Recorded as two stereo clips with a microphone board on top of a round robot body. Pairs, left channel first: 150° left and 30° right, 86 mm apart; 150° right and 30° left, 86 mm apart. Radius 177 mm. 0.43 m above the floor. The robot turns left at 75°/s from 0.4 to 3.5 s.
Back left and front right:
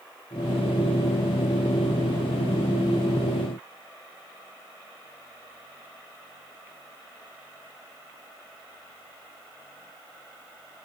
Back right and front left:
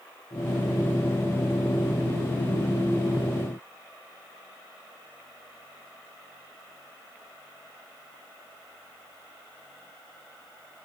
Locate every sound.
Only background noise.